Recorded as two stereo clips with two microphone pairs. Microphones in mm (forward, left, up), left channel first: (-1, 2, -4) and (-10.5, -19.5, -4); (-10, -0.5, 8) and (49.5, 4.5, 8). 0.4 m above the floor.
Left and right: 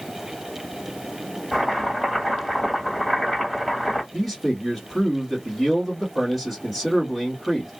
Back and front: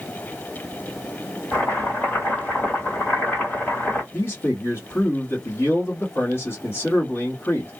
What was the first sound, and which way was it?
Chopping, 145° left.